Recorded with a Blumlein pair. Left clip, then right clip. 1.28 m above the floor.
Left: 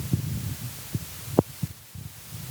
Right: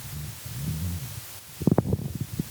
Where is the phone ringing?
No phone ringing in this recording.